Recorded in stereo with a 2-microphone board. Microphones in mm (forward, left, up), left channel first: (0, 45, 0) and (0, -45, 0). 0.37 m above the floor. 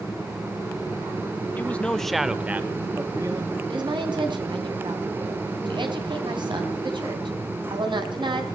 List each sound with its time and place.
1.6 s a man speaking: 20° left (ahead or behind), 1.2 m; by 3.5 s 35° right (ahead or behind), 1.6 m
3.7 s a woman speaking: 60° right (ahead or behind), 3.5 m